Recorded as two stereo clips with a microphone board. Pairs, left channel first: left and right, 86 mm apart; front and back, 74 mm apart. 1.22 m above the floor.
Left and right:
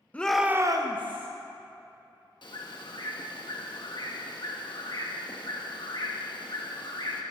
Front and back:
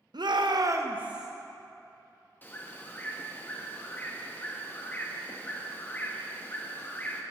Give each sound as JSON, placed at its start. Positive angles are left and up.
{"t": 0.1, "sound": "a shout", "azimuth_deg": 165, "distance_m": 0.9}
{"t": 2.4, "sound": "a bird", "azimuth_deg": 60, "distance_m": 1.1}